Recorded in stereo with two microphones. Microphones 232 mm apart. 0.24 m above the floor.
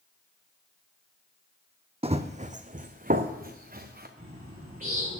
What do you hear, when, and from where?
2.0 s running footsteps: 25° right (ahead or behind), 0.7 m; by 4.1 s 40° right (ahead or behind), 1.8 m
4.2 s a bird: 35° right (ahead or behind), 5 m